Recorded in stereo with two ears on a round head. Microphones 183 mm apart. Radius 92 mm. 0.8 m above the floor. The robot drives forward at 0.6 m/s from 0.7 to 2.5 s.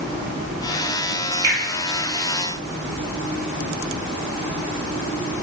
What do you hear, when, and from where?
1.4 s a finger snap: 15° right (ahead or behind), 1.3 m